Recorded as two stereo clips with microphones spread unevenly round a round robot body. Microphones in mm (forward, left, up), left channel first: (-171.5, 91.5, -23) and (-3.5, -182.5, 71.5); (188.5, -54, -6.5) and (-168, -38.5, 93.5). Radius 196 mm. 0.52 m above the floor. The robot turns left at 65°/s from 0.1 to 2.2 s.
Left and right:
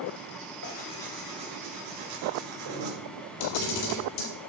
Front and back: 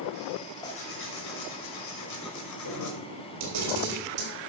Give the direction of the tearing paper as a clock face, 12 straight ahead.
10 o'clock.